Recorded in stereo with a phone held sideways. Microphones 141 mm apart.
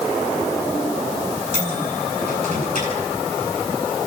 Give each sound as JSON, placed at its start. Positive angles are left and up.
{"t": 1.5, "sound": "a microwave", "side_deg": -65, "distance_m": 7.5}